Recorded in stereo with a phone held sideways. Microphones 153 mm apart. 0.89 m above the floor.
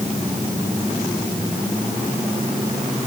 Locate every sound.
Only background noise.